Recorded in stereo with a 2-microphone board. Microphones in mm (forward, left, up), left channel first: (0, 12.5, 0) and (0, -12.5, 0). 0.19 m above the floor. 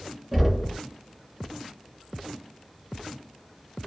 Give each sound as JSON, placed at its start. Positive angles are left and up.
{"t": 0.3, "sound": "knocking", "side_deg": -10, "distance_m": 1.3}